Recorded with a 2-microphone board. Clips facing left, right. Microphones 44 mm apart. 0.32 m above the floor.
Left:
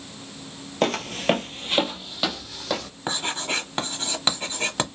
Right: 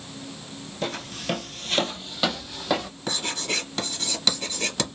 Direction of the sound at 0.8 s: 65° left (ahead or behind).